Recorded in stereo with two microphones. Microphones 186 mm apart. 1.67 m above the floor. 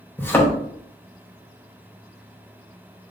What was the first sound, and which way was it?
A thud, 10° left (ahead or behind).